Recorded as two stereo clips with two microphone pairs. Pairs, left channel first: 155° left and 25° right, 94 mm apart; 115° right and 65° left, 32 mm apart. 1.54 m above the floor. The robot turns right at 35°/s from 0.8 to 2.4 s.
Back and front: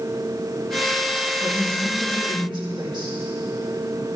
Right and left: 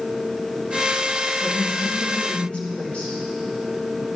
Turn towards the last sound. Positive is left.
turn(degrees=-60)